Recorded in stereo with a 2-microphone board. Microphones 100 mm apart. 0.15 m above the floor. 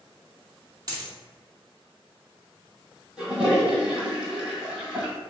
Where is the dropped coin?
40° right (ahead or behind), 0.8 m.